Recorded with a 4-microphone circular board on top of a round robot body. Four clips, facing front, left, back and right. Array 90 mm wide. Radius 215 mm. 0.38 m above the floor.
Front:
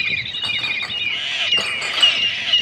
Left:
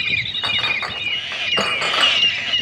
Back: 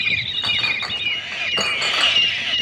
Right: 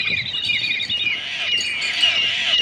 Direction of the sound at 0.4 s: 100° left.